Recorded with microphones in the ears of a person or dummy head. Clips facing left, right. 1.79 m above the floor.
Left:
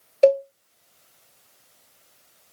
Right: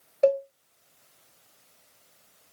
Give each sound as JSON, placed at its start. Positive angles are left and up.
{"t": 0.2, "sound": "a cowbell", "side_deg": 40, "distance_m": 0.8}